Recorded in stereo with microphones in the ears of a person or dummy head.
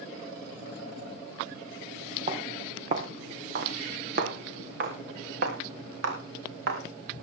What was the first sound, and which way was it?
Footsteps, 40° right (ahead or behind).